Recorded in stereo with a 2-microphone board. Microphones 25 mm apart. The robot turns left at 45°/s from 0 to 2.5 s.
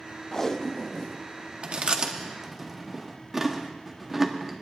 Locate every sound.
0.3 s tape being pulled: 20° left (ahead or behind), 0.5 m; by 1.2 s 25° left (ahead or behind), 0.5 m
1.6 s chewing: 50° right (ahead or behind), 1.0 m; by 4.6 s 15° right (ahead or behind), 1.0 m